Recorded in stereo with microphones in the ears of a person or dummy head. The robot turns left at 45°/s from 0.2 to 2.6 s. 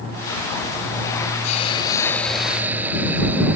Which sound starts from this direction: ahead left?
A hiss, at 1.4 s.